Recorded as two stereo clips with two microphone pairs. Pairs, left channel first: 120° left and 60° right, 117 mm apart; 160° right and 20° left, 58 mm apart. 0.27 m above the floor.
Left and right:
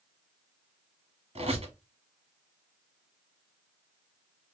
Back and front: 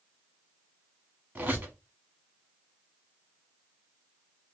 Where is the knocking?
I don't hear knocking.